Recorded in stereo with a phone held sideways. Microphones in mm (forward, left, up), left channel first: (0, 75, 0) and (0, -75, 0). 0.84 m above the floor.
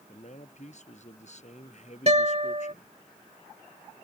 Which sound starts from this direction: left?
A man speaking, at 0.1 s.